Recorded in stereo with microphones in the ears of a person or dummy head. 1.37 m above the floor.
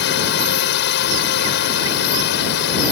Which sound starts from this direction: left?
A drone, at 0.0 s.